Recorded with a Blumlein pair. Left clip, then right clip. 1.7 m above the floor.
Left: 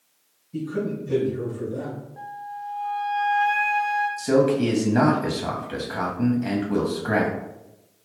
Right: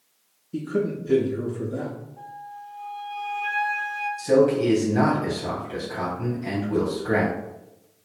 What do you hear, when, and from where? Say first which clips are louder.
0.5 s a man speaking: right 2 dB; 30° right, 0.7 m
2.2 s a flute: left 4 dB; 35° left, 1.3 m
4.2 s a man speaking: right 4 dB; 65° left, 1.0 m